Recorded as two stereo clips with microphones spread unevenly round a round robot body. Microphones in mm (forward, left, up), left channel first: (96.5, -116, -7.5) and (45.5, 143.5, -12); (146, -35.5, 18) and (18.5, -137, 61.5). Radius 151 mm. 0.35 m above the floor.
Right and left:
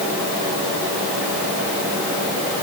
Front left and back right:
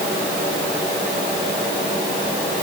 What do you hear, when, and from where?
Only background noise.